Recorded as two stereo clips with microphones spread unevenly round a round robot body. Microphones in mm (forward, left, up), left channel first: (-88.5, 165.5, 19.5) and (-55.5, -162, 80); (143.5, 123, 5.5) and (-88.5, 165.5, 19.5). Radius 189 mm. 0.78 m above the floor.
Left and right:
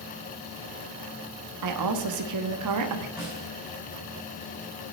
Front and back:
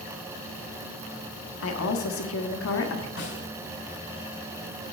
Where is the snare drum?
5° left, 5.5 m.